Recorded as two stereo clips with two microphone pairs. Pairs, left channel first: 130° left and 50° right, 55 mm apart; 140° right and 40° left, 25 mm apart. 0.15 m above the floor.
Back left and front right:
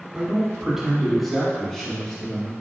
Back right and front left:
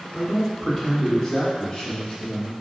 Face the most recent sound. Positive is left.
turn(degrees=-165)